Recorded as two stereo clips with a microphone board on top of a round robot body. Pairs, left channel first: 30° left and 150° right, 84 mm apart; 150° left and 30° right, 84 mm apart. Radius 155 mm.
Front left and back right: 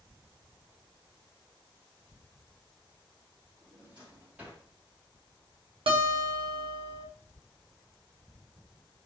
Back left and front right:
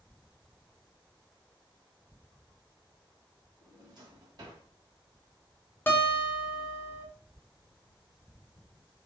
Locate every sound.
3.6 s a drawer: 75° right, 1.3 m
5.9 s a guitar: 145° right, 0.9 m